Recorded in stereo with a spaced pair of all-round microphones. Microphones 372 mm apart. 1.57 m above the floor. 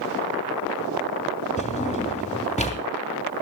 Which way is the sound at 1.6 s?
20° left (ahead or behind).